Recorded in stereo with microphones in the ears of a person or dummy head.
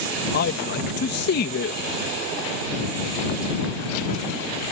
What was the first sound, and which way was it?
A man speaking, 55° left (ahead or behind).